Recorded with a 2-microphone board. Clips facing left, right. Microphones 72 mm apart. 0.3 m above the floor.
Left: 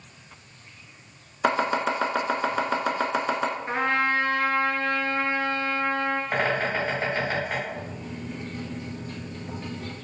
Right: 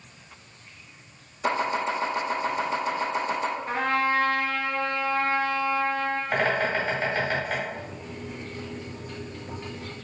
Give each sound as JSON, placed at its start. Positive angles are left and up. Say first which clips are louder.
{"t": 1.4, "sound": "chopping", "louder": "left 2 dB", "side_deg": 85, "distance_m": 0.6}
{"t": 3.7, "sound": "a trumpet", "louder": "even", "side_deg": 25, "distance_m": 0.7}
{"t": 6.3, "sound": "a bird", "louder": "right 3 dB", "side_deg": 10, "distance_m": 1.5}
{"t": 7.7, "sound": "a microwave", "louder": "left 1 dB", "side_deg": -5, "distance_m": 1.7}